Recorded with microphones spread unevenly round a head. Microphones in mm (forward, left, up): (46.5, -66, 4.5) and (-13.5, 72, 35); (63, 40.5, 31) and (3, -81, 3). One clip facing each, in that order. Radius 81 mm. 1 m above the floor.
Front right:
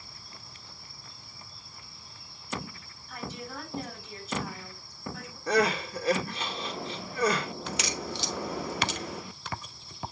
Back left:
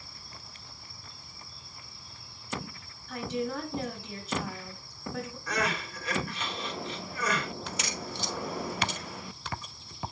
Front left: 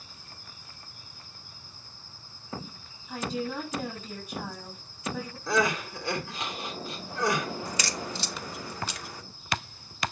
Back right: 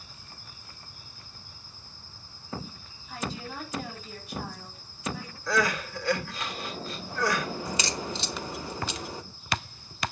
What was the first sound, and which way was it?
A woman speaking, 80° left.